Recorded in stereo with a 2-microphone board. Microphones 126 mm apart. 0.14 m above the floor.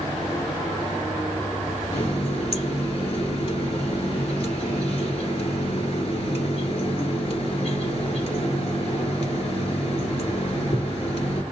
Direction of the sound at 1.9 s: 50° left (ahead or behind).